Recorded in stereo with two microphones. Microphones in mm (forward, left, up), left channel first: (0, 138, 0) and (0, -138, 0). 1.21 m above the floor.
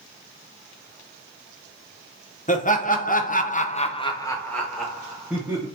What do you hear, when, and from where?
2.5 s laughter: 30° left (ahead or behind), 1.0 m; by 5.7 s 5° right (ahead or behind), 1.2 m